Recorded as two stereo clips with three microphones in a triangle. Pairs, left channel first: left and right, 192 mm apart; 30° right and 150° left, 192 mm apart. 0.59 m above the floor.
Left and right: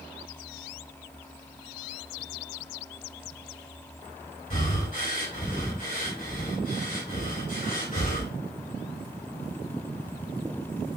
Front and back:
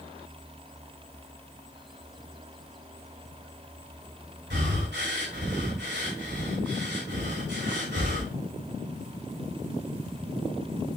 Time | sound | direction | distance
4.5 | breathing | 135° left | 4 m